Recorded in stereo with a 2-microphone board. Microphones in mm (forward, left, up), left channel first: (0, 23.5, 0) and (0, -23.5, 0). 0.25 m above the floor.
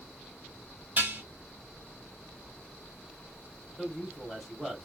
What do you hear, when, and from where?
1.0 s dishes clattering: 40° right (ahead or behind), 0.9 m
3.8 s a man speaking: centre (ahead or behind), 1.3 m